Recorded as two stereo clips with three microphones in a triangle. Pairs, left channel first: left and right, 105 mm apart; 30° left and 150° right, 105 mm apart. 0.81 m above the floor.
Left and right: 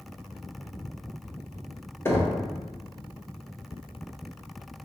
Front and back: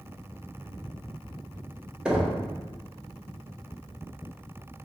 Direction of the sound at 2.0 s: 135° left.